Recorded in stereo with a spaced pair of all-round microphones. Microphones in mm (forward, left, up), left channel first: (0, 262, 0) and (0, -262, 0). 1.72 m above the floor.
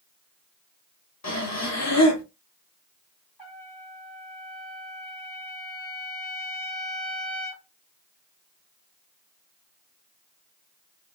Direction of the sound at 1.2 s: 30° left (ahead or behind).